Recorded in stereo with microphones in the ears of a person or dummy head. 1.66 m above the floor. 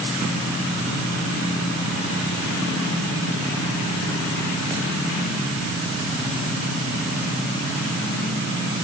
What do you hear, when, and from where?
Only background noise.